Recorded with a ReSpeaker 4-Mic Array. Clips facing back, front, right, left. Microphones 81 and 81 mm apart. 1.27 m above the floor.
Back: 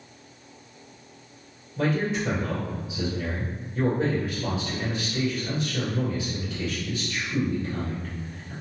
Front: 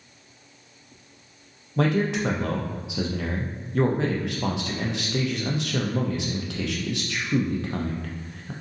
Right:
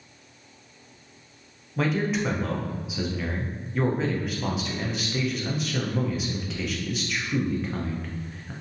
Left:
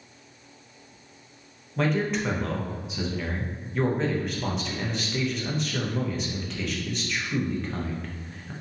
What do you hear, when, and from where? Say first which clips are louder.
1.8 s a man speaking: front 2 dB, even; 5° right, 0.6 m